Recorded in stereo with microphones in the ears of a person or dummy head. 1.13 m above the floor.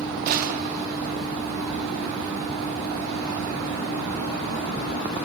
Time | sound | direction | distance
0.3 | a gunshot | 50° right (ahead or behind) | 1.2 m